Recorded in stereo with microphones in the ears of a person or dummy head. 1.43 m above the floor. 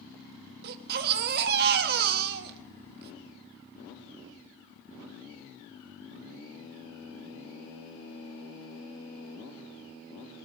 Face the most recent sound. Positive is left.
turn(degrees=-50)  # may be behind; listen again after turning